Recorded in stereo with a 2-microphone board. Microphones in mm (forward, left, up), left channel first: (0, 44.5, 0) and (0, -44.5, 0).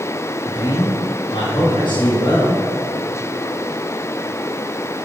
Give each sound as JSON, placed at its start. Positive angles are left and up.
{"t": 0.5, "sound": "a man speaking", "side_deg": 55, "distance_m": 2.5}